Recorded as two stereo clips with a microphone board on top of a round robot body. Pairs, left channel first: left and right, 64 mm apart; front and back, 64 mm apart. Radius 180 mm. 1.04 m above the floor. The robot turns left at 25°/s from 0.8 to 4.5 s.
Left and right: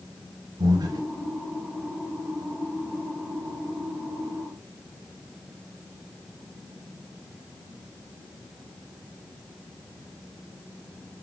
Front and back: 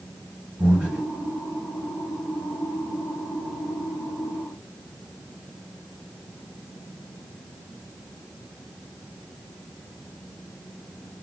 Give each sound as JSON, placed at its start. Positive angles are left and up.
{"t": 0.6, "sound": "breathing", "azimuth_deg": -110, "distance_m": 1.8}